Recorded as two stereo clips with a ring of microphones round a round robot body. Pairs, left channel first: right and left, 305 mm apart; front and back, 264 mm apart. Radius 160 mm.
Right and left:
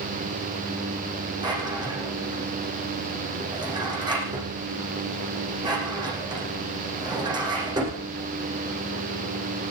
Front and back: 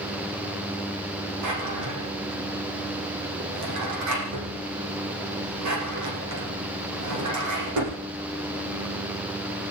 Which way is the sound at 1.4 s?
165° left.